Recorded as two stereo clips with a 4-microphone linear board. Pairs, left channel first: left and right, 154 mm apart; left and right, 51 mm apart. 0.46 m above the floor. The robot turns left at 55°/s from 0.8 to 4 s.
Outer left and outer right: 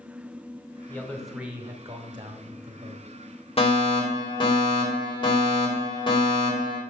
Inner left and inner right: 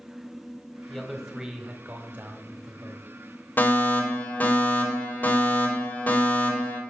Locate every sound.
0.9 s a man speaking: 20° left, 1.6 m; by 3.2 s 105° right, 1.6 m
3.6 s a fire alarm: 40° left (ahead or behind), 2.5 m; by 6.8 s 30° left (ahead or behind), 2.5 m